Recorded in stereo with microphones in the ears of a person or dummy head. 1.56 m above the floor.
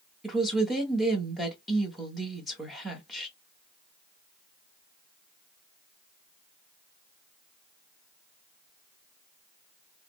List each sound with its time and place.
0.2 s a woman speaking: 5° right (ahead or behind), 1.0 m